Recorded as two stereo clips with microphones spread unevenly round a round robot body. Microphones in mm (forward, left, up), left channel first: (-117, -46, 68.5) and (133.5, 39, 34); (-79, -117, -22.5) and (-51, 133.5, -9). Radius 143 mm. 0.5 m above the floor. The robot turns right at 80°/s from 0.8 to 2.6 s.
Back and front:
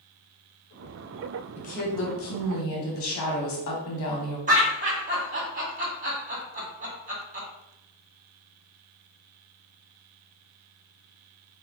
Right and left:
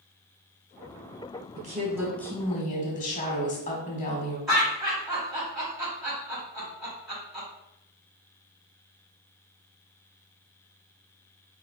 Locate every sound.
1.6 s a woman speaking: 130° left, 1.0 m; by 4.4 s 145° right, 1.0 m
4.5 s laughter: 10° right, 1.6 m